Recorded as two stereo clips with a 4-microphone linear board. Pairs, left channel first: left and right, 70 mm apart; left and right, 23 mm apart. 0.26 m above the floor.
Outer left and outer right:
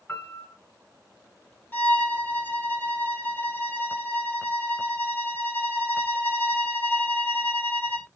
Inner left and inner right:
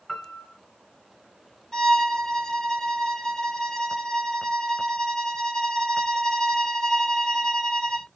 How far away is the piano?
About 1.4 m.